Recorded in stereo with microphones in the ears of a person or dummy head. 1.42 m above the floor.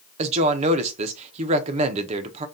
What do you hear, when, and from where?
0.2 s a woman speaking: 35° right (ahead or behind), 0.5 m